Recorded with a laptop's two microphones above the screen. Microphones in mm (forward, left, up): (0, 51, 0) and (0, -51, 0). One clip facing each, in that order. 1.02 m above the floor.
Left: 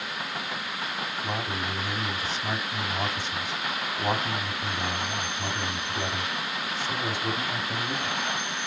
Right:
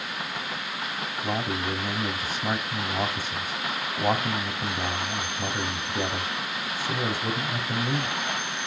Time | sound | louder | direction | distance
1.2 | a man speaking | right 5 dB | 50° right (ahead or behind) | 5 m